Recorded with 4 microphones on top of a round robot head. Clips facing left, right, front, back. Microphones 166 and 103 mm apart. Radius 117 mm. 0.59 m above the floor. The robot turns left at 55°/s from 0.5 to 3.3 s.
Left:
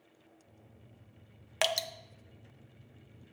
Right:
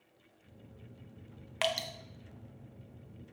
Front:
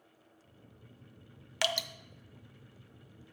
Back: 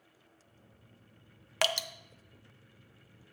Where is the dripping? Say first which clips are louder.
Left 1 dB, back 2 dB; 135° left, 0.6 m; by 1.9 s 120° left, 0.6 m.